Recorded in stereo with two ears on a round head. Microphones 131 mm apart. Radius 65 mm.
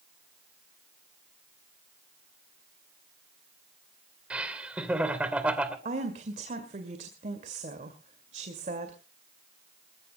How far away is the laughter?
About 2.5 m.